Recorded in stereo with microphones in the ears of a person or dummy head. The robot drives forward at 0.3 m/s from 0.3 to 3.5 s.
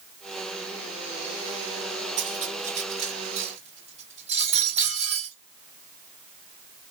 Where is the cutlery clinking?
50° right (ahead or behind), 1.2 m; by 5.3 s 40° right (ahead or behind), 1.4 m.